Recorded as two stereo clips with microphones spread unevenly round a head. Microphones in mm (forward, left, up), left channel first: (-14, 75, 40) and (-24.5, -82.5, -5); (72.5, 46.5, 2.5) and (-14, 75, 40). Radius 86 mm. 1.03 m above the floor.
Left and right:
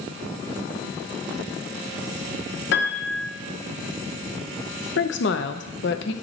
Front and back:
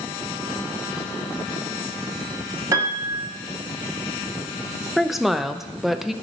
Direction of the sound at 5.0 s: 65° left.